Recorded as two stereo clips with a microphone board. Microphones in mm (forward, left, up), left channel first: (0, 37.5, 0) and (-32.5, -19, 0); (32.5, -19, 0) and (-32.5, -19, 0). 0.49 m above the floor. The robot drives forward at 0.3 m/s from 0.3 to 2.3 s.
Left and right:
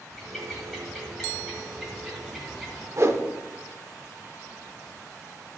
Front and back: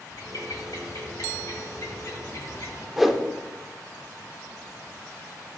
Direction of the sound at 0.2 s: 30° right.